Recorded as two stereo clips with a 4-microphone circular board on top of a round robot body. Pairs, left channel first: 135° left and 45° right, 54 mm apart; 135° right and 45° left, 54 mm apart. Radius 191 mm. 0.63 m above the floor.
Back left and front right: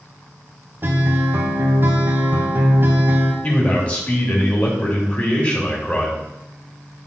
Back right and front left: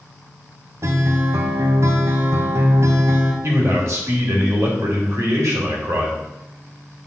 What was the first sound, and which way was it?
A guitar, 10° left.